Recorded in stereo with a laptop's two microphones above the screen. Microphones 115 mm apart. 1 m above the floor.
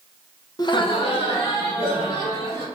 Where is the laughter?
35° left (ahead or behind), 0.7 m; by 2.6 s 55° left (ahead or behind), 3.5 m.